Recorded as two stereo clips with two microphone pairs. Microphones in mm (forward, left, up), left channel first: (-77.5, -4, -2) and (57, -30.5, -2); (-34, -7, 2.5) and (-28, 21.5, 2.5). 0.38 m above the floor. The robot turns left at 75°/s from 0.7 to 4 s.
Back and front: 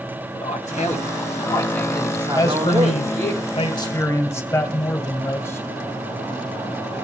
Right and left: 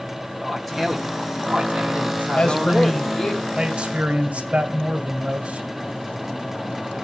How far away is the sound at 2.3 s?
About 1.7 m.